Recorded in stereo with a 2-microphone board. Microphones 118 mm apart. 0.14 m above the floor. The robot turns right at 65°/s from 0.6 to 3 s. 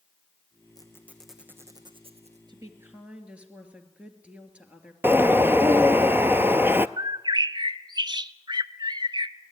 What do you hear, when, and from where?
0.8 s a squeak: 30° left (ahead or behind), 2 m; by 2.4 s 75° right (ahead or behind), 2 m
2.5 s a woman speaking: 45° right, 2.5 m; by 4.9 s 10° right, 2.5 m
5.0 s a bird: 20° right (ahead or behind), 0.5 m
7.0 s a bird: 40° right (ahead or behind), 0.5 m